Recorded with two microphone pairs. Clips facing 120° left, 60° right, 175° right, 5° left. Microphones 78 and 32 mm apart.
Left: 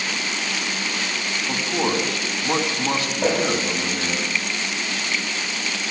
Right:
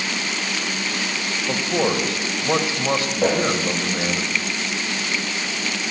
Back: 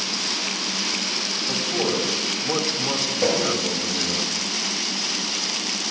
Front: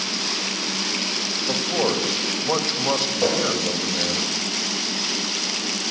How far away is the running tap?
About 10 m.